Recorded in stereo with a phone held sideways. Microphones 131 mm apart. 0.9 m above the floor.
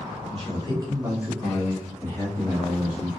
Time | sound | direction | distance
0.3 | a man speaking | 45° right (ahead or behind) | 1.0 m